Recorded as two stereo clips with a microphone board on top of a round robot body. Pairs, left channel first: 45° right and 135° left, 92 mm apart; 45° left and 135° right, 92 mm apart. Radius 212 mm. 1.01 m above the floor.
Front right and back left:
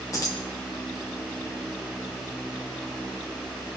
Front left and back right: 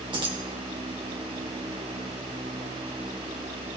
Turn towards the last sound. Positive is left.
turn(degrees=-100)